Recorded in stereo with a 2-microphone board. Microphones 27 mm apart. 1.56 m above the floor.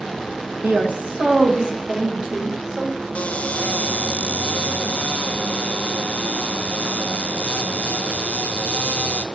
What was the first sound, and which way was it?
A woman speaking, 70° right (ahead or behind).